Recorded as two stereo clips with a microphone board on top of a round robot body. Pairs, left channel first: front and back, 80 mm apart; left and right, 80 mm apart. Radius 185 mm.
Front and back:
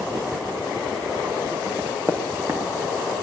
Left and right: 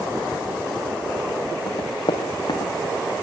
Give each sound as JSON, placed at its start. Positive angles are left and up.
{"t": 1.7, "sound": "running footsteps", "azimuth_deg": 115, "distance_m": 4.0}